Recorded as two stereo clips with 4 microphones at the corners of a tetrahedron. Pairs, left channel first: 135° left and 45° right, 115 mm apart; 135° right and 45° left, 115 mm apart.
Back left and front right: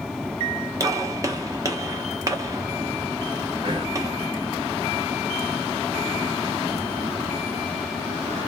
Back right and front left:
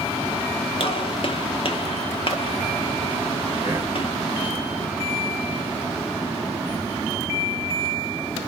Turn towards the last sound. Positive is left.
turn(degrees=-15)